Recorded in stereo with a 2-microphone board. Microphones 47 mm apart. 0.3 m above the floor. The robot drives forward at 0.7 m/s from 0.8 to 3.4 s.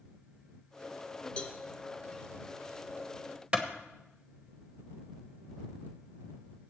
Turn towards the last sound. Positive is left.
turn(degrees=-20)  # may be behind; listen again after turning